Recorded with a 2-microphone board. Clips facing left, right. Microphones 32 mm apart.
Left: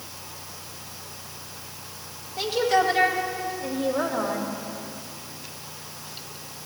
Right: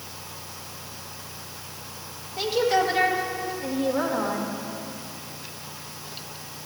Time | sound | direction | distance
2.4 | a woman speaking | 5° right (ahead or behind) | 2 m